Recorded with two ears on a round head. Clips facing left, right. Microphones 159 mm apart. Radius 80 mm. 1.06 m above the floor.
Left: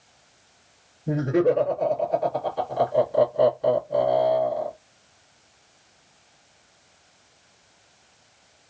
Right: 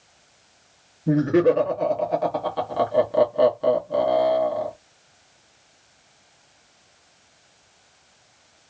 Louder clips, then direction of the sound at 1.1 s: Right 3 dB; 65° right (ahead or behind).